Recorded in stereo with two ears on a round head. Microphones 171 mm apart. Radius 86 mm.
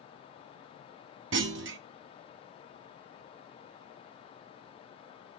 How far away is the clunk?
About 0.5 m.